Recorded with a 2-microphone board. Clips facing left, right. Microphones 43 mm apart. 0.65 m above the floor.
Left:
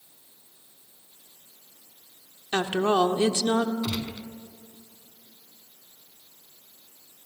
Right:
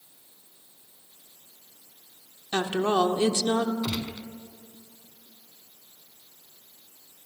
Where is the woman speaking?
25° left (ahead or behind), 1.3 m.